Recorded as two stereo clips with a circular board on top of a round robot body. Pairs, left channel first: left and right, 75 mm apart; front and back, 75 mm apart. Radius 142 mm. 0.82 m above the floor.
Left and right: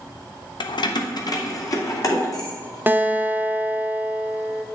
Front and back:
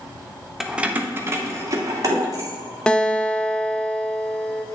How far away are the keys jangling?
About 0.7 m.